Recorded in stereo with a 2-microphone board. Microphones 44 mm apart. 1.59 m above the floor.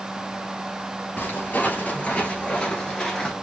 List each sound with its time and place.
1.2 s footsteps: 40° left (ahead or behind), 2 m; by 3.3 s 10° left (ahead or behind), 1.6 m